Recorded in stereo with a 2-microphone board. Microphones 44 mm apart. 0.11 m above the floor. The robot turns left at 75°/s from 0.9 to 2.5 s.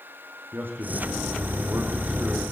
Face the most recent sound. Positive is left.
turn(degrees=-175)